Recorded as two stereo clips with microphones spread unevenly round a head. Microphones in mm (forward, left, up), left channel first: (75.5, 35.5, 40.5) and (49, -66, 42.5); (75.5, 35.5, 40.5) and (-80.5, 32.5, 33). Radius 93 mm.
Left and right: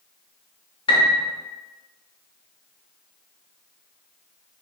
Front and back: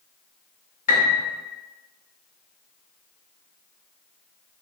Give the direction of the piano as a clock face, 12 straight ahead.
11 o'clock.